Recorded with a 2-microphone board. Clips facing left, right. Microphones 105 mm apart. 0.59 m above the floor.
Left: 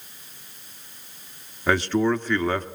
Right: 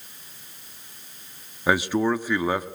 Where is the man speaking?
10° right (ahead or behind), 0.9 m.